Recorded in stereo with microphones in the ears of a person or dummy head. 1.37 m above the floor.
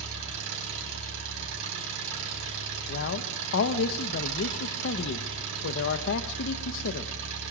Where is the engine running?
70° right (ahead or behind), 5 m.